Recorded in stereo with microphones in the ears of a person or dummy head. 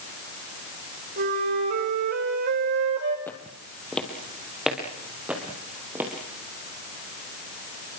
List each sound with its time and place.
1.2 s a flute: 65° right (ahead or behind), 6 m
3.3 s footsteps: 10° left (ahead or behind), 3.5 m; by 6.1 s 10° right (ahead or behind), 5.5 m